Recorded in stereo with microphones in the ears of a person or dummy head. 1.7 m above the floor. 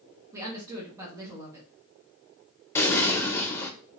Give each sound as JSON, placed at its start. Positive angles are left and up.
{"t": 0.3, "sound": "a woman speaking", "side_deg": -20, "distance_m": 1.1}
{"t": 2.8, "sound": "an explosion", "side_deg": 15, "distance_m": 0.5}